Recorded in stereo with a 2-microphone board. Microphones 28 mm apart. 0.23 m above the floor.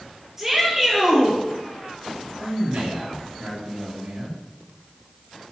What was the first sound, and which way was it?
A shout, 5° right (ahead or behind).